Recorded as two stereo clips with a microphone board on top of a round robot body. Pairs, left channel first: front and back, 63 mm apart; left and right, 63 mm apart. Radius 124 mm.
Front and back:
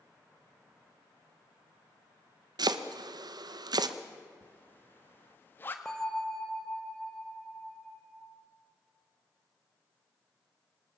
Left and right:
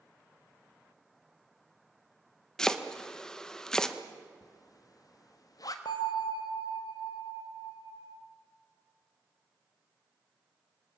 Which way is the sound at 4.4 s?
60° left.